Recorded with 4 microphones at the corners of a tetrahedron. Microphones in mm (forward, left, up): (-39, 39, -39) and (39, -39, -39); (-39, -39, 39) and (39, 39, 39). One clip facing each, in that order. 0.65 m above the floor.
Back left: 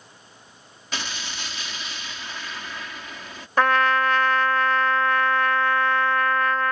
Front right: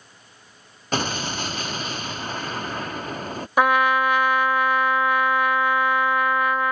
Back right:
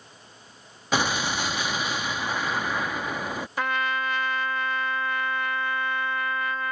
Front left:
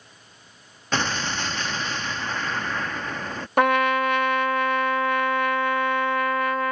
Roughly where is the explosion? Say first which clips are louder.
Front right 9 dB, back right 1 dB; ahead right.